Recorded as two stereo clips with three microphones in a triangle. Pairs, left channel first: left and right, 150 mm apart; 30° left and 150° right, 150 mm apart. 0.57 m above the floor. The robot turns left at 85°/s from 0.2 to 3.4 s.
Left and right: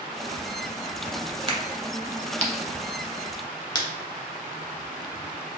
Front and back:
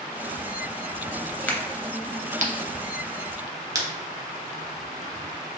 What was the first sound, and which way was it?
A crack, 45° right.